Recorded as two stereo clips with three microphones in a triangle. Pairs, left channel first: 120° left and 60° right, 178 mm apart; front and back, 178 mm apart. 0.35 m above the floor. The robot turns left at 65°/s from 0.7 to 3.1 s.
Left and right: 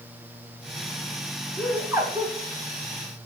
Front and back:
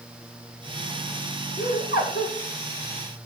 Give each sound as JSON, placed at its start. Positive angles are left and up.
{"t": 1.6, "sound": "laughter", "azimuth_deg": 40, "distance_m": 5.5}